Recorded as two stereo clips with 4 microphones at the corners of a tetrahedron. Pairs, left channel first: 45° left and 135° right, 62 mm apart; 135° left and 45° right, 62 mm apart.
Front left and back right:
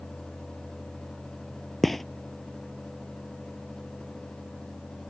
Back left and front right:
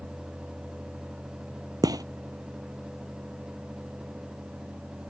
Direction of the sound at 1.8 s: 40° right.